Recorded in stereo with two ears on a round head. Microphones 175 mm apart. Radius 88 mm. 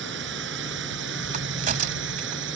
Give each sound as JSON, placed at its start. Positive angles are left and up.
{"t": 0.0, "sound": "a drone", "side_deg": -60}
{"t": 1.3, "sound": "a crack", "side_deg": -40}